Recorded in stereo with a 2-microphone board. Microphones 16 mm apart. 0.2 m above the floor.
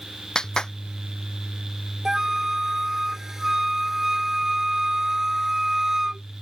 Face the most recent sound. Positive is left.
turn(degrees=-30)  # may be behind; listen again after turning